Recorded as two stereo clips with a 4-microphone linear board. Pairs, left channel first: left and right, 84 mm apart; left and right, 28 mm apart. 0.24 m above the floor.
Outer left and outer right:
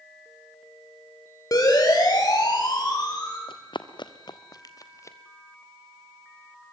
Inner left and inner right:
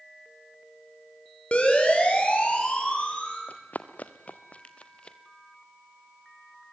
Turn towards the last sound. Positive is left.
turn(degrees=35)  # may be behind; listen again after turning